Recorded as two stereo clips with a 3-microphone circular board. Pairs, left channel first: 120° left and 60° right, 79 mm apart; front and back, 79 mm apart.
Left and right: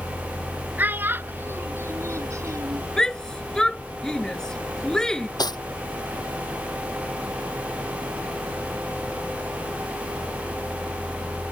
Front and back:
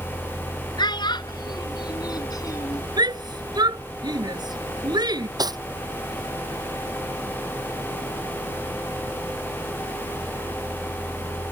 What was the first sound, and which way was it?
A child speaking, 5° left.